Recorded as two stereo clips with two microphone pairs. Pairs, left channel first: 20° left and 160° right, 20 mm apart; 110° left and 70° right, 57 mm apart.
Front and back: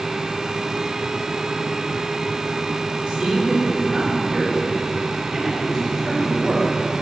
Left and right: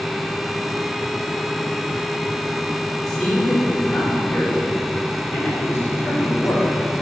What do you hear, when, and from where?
3.1 s a man speaking: 170° right, 2.5 m; by 6.7 s 155° left, 4 m